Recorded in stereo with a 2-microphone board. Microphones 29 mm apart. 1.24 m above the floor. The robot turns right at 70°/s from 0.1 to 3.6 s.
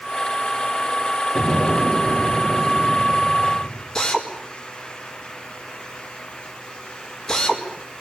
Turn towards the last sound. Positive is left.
turn(degrees=20)  # may be behind; listen again after turning